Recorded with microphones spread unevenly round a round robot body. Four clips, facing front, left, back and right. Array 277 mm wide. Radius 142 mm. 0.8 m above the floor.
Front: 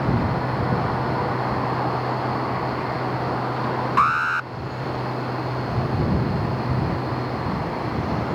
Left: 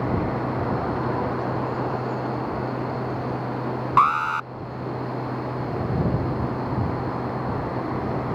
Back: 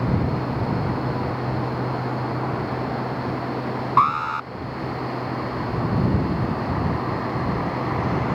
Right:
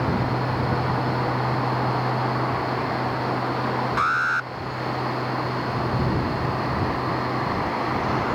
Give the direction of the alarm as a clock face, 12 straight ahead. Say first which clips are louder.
Left 8 dB, back 2 dB; 10 o'clock.